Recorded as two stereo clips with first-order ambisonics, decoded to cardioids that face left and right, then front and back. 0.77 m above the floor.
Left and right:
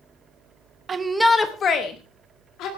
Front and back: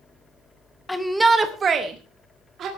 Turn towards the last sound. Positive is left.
turn(degrees=125)